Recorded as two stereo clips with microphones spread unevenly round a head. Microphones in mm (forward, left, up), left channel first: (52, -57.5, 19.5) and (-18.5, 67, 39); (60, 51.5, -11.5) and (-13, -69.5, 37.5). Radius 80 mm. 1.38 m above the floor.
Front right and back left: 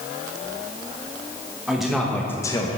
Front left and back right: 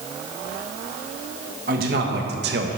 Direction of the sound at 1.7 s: 155° right.